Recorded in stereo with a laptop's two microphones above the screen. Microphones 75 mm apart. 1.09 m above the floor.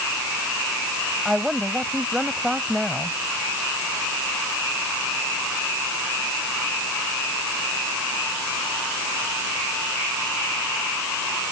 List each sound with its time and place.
1.2 s a woman speaking: 5° right (ahead or behind)